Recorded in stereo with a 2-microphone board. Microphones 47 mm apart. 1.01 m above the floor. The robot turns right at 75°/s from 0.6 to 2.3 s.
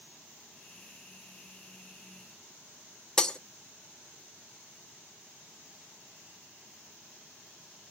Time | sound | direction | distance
3.2 | breaking glass | 15° left (ahead or behind) | 0.6 m